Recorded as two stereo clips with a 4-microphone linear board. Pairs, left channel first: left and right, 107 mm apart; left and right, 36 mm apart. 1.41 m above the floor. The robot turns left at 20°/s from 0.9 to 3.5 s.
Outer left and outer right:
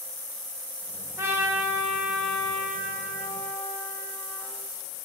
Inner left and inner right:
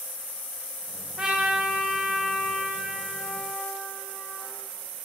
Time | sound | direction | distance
1.2 | a trumpet | 155° right | 0.6 m